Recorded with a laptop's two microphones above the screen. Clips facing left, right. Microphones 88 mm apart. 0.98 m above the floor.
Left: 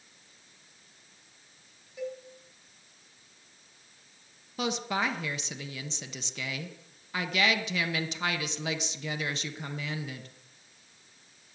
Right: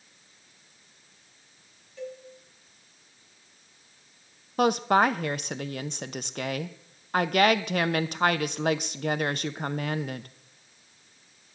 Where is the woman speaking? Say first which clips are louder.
Right 9 dB; 55° right (ahead or behind), 0.6 m.